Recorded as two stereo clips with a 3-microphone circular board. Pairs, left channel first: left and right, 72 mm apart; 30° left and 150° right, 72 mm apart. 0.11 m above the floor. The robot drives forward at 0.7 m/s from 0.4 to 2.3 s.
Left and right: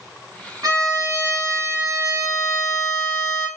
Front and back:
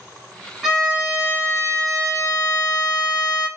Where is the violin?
60° right, 1.2 m; by 3.5 s 125° right, 1.2 m.